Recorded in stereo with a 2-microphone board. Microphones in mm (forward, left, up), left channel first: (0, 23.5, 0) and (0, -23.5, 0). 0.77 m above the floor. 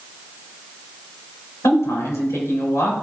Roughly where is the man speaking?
Left.